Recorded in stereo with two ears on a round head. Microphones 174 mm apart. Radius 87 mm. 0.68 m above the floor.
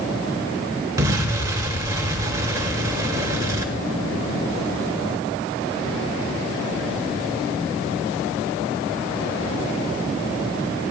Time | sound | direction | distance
1.0 | an explosion | 20° right (ahead or behind) | 1.7 m